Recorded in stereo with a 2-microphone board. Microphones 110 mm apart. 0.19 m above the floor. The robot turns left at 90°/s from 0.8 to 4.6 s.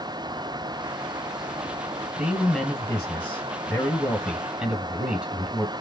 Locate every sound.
2.2 s a man speaking: 5° right (ahead or behind), 1.1 m; by 5.7 s 10° right (ahead or behind), 1.1 m